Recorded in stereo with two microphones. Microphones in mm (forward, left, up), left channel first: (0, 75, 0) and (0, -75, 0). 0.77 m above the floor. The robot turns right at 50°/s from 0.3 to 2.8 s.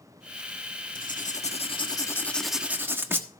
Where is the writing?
105° left, 1.2 m; by 3.3 s 165° right, 1.2 m.